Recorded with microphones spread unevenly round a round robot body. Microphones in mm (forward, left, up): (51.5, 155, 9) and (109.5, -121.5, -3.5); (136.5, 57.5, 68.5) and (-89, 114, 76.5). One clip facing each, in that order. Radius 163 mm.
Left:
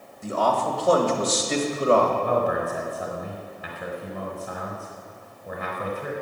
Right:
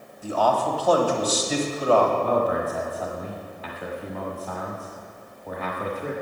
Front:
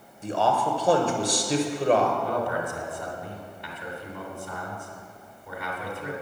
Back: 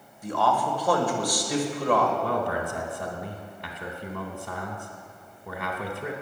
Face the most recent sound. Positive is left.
turn(degrees=180)